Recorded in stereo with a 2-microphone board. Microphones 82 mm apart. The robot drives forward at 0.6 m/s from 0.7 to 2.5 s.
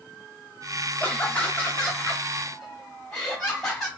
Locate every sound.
1.0 s laughter: 20° left (ahead or behind), 0.6 m; by 3.9 s 10° left (ahead or behind), 1.2 m